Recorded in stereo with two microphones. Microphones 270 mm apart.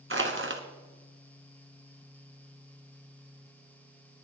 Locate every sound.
0.1 s crushing: 45° right (ahead or behind), 1.6 m